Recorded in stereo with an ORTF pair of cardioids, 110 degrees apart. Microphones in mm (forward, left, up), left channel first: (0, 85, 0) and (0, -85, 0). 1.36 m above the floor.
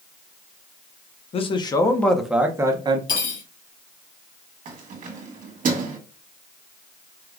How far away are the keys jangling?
About 1.5 m.